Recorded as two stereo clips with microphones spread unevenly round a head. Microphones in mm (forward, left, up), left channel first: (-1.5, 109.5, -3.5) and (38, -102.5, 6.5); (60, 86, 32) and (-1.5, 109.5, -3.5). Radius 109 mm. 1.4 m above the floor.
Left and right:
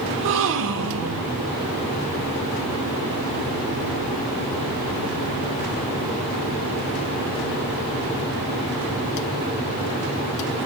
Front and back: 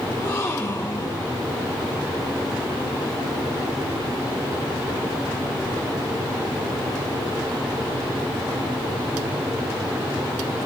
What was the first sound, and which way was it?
A gasp, 75° right.